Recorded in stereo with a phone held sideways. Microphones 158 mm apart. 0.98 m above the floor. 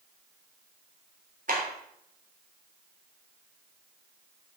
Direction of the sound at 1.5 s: 60° right (ahead or behind).